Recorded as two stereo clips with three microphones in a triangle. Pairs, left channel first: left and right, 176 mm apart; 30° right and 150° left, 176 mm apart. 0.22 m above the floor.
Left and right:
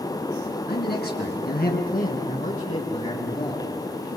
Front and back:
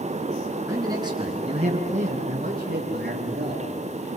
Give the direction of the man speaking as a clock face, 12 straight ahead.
9 o'clock.